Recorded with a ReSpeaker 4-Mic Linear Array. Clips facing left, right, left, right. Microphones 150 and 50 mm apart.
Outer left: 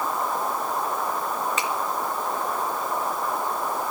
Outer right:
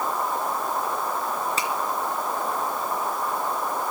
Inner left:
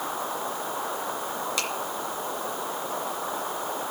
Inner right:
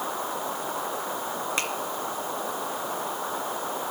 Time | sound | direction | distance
1.6 | a finger snap | 35° right (ahead or behind) | 3.5 m